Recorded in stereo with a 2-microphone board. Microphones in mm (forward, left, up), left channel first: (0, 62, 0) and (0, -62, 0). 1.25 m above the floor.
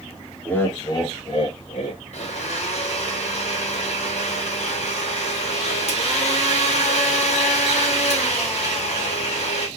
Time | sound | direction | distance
0.5 | laughter | 10° left (ahead or behind) | 0.8 m
2.1 | a blender | 60° left (ahead or behind) | 1.1 m